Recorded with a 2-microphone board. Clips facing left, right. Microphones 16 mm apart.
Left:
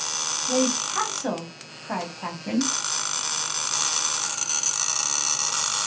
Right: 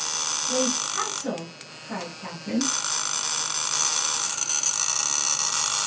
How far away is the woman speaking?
About 3 m.